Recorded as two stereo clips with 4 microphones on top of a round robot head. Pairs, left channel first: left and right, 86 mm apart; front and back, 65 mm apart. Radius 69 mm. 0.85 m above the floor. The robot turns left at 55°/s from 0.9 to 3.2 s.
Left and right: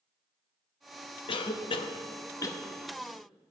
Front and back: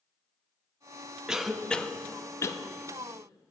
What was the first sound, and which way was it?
A cough, 100° left.